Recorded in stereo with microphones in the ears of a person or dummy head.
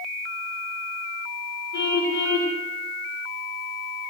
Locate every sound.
1.7 s a car horn: 65° left (ahead or behind), 9.5 m